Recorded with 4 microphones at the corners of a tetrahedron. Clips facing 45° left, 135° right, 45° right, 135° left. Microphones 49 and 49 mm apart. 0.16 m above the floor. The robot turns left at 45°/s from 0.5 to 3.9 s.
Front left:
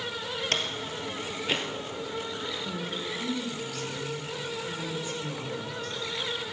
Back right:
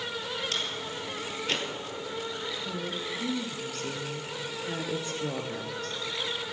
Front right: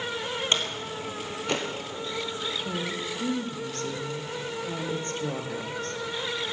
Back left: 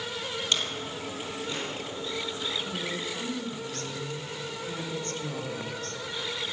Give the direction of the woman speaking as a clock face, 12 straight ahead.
2 o'clock.